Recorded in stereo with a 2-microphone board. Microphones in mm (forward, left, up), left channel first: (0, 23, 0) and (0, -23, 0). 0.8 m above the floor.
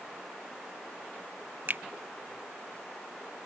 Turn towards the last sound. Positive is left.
turn(degrees=-45)  # may be behind; listen again after turning